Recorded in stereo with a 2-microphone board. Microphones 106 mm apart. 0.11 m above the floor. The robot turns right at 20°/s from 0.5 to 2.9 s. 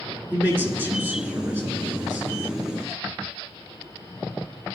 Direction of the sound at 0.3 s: 20° right (ahead or behind).